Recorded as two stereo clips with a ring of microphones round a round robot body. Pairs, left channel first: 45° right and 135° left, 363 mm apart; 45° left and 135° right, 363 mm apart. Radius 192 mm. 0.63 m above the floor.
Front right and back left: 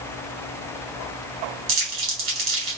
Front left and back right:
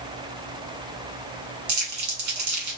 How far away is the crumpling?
About 2 m.